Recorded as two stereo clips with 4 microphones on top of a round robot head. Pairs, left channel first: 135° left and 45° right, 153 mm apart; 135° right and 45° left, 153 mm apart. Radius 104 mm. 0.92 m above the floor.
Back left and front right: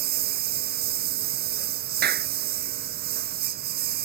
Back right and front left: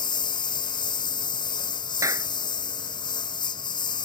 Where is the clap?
25° right.